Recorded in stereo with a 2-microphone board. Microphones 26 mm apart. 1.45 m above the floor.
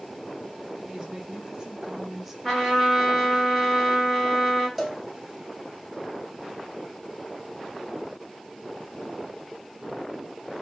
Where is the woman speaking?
30° right (ahead or behind), 1.8 m; by 2.3 s 15° right (ahead or behind), 1.0 m.